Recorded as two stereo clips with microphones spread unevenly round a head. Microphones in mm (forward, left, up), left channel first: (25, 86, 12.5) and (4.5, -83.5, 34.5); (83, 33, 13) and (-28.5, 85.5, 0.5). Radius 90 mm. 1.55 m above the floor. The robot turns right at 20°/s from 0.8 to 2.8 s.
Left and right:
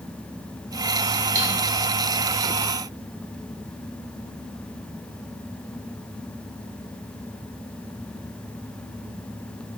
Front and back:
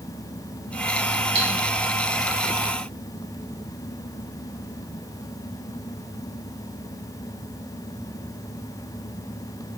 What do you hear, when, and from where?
1.4 s cutlery clinking: 165° right, 1.0 m